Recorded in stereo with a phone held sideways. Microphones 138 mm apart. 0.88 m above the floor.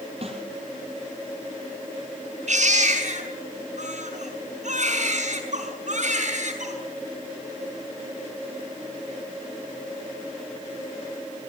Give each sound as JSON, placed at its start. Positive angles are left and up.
{"t": 0.2, "sound": "a snare drum", "side_deg": -45, "distance_m": 4.5}
{"t": 2.5, "sound": "a baby crying", "side_deg": -60, "distance_m": 6.0}